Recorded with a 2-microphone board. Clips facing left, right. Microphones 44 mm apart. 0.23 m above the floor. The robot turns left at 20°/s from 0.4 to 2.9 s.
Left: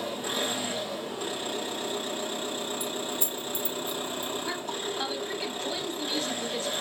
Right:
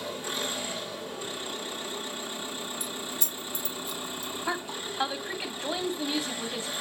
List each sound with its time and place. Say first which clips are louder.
0.0 s an engine running: left 2 dB; 105° left, 2 m; by 6.8 s 55° left, 2 m
2.8 s keys jangling: left 4 dB; 25° left (ahead or behind), 0.8 m
4.5 s a woman speaking: even; 25° right (ahead or behind), 1.3 m